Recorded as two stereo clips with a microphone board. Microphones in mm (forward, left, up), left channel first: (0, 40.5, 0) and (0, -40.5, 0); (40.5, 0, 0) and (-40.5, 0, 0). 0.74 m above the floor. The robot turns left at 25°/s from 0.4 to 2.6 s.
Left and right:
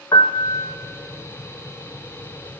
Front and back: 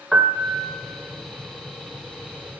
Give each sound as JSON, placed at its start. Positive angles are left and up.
{"t": 0.1, "sound": "a piano", "azimuth_deg": 100, "distance_m": 0.6}